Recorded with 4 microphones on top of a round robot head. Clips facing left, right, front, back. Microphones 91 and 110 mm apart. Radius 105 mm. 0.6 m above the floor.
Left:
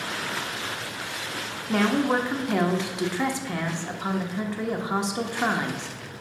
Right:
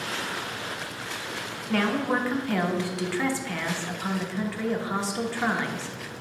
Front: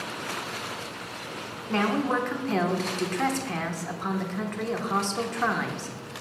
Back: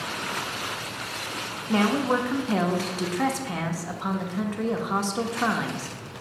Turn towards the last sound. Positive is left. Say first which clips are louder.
# left 3 dB, back 3 dB
turn(degrees=115)